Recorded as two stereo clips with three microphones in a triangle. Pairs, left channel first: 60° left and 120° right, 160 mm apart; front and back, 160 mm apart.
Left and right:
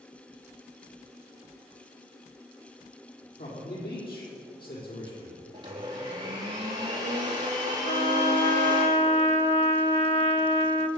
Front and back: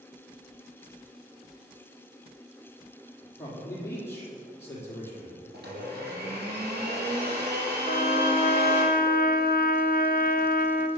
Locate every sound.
3.4 s a man speaking: 75° left, 6 m
5.5 s a blender: straight behind, 4.5 m
7.8 s a trumpet: 15° left, 1.0 m